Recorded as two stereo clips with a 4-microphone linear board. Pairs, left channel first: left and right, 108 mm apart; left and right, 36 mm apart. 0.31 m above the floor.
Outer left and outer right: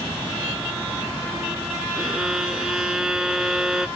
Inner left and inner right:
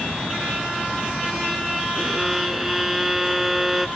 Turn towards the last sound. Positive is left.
turn(degrees=-5)  # may be behind; listen again after turning